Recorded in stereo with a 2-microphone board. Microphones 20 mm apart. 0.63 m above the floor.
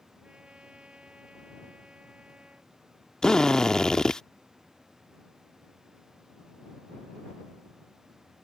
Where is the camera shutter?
I don't hear a camera shutter.